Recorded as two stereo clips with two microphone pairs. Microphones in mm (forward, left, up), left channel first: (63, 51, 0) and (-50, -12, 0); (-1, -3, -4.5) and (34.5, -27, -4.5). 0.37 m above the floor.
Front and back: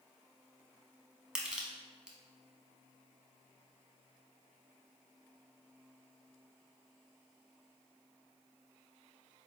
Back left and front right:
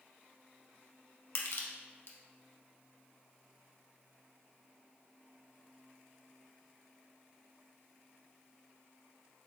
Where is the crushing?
125° left, 0.7 m.